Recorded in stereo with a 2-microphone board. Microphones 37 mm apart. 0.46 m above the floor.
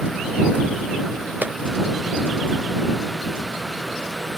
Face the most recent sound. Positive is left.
turn(degrees=-60)  # may be behind; listen again after turning